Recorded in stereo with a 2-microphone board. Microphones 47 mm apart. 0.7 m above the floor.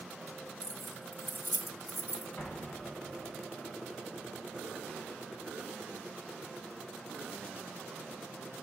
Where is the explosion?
60° left (ahead or behind), 5 m.